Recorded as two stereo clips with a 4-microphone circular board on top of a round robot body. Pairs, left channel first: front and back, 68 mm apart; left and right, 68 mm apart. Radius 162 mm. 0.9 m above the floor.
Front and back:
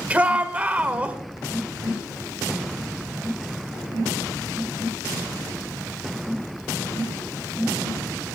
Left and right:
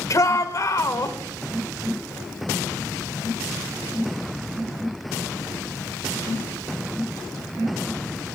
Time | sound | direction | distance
0.1 | a shout | 110° left | 1.7 m